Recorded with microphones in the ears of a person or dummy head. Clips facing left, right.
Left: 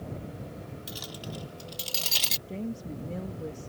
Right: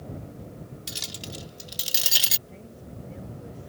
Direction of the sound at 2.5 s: 65° left (ahead or behind).